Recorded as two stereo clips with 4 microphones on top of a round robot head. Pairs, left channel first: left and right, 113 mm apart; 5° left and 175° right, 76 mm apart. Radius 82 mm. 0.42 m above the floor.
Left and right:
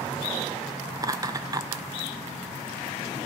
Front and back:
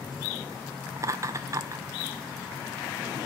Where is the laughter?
140° right, 1.1 m.